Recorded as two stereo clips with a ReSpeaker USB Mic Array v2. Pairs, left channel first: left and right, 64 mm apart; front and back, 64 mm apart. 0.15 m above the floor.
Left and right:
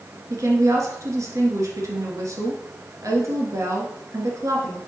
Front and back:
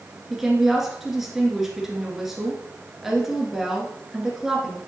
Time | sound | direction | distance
0.3 | a woman speaking | 95° right | 1.8 m